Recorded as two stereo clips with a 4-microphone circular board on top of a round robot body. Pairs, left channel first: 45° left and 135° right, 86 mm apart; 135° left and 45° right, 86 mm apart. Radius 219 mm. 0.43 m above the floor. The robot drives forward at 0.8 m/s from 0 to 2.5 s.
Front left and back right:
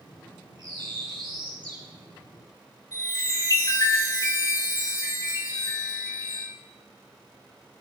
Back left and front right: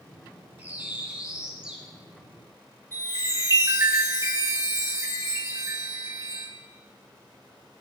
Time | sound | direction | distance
0.6 | a bird | 115° right | 3.5 m
2.9 | a chime | 5° left | 4 m